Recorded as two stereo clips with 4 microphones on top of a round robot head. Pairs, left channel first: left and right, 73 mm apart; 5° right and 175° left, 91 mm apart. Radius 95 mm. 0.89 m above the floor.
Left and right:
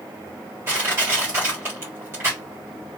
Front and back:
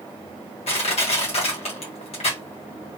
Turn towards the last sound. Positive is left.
turn(degrees=-25)